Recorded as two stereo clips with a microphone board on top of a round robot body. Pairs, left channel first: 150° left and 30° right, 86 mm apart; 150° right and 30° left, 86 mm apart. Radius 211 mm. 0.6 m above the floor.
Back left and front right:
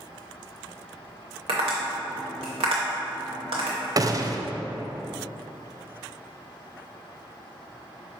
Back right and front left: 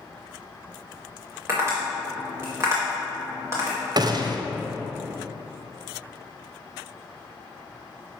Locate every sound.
1.5 s tapping: 30° right, 0.6 m
4.0 s a gunshot: 10° left, 0.7 m